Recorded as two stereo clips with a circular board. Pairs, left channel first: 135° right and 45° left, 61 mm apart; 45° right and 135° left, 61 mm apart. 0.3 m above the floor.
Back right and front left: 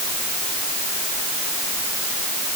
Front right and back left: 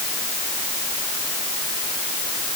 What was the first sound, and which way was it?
Only background noise.